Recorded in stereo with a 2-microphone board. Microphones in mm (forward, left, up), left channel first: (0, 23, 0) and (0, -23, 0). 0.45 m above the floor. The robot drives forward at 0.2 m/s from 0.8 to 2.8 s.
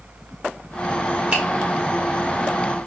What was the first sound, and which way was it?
A finger snap, 35° right (ahead or behind).